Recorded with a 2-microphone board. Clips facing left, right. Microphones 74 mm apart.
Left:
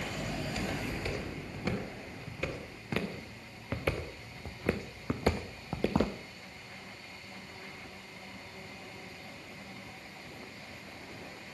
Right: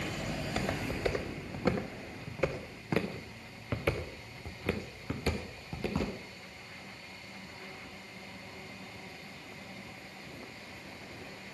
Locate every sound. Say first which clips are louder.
0.4 s footsteps: right 3 dB; 40° right (ahead or behind), 3.5 m; by 6.2 s 60° left (ahead or behind), 1.7 m